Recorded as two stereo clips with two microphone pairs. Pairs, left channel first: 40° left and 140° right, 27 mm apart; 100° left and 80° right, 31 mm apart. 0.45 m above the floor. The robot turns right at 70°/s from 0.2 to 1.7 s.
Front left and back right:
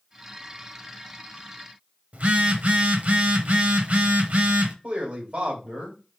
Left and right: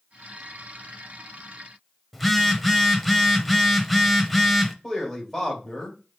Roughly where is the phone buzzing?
Behind.